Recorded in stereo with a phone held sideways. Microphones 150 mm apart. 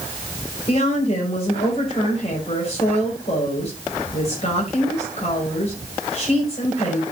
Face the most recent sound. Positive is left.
turn(degrees=45)  # may be behind; listen again after turning